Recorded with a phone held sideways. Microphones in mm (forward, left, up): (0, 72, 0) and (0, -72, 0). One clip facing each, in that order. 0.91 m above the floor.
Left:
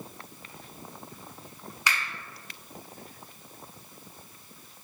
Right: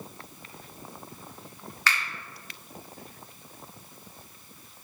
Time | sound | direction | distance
1.9 | a finger snap | 15° left (ahead or behind) | 0.8 m